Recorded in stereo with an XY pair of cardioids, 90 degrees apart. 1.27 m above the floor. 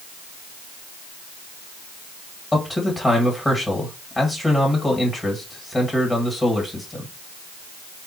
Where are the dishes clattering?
I don't hear dishes clattering.